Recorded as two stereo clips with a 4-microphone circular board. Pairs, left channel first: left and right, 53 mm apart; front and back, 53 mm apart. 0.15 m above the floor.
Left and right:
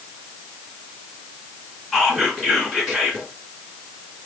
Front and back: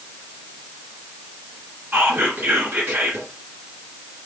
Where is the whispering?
Straight behind, 1.5 m.